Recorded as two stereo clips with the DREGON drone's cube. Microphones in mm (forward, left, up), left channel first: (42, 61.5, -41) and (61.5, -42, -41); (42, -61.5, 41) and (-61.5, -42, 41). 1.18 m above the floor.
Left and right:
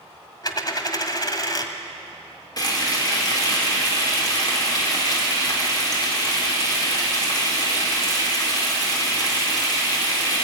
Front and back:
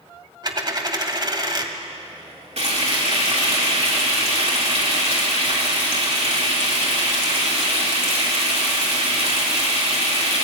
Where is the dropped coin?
140° left, 1.4 m.